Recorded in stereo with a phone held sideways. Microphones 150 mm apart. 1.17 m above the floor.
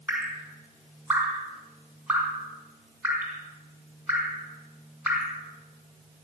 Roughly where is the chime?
I don't hear a chime.